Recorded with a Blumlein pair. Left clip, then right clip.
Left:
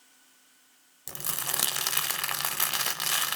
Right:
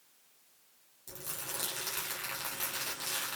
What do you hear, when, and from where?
1.1 s crumpling: 50° left, 0.8 m